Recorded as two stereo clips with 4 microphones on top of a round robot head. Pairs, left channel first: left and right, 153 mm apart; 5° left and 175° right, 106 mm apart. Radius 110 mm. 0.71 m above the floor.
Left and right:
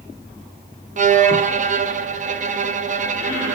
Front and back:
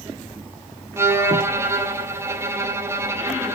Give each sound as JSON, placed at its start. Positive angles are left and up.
{"t": 1.0, "sound": "a violin", "azimuth_deg": -115, "distance_m": 0.9}